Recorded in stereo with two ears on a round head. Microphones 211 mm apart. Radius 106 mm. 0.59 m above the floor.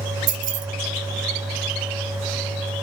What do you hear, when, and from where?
0.3 s keys jangling: 65° right (ahead or behind), 1.3 m